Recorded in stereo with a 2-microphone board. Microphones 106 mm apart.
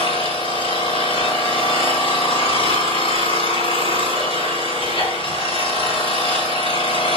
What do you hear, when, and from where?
0.0 s an engine running: 60° left (ahead or behind), 4 m